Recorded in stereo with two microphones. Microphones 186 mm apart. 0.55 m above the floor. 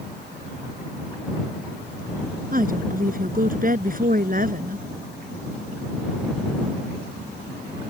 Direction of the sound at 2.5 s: 50° right (ahead or behind).